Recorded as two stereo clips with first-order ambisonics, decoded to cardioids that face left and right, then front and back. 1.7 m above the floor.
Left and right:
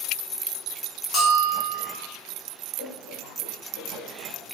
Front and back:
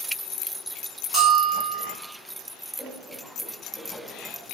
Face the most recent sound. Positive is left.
turn(degrees=75)